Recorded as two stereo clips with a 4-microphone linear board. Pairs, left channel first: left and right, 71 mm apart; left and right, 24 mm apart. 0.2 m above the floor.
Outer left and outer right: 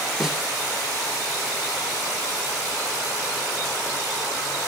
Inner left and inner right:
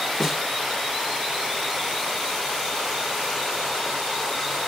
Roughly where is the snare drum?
Centre.